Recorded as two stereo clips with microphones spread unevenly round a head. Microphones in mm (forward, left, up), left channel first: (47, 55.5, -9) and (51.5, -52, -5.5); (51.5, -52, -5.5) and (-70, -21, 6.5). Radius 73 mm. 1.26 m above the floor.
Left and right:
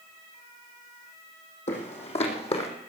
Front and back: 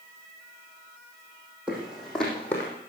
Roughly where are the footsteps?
Left.